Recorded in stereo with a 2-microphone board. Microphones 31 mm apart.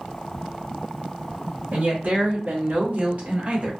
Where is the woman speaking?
70° right (ahead or behind), 1.0 m; by 3.7 s 35° right (ahead or behind), 1.3 m.